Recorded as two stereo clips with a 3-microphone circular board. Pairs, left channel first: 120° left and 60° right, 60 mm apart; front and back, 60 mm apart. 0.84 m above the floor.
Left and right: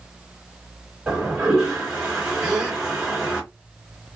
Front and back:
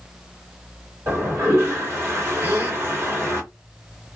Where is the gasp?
125° right, 2.5 m.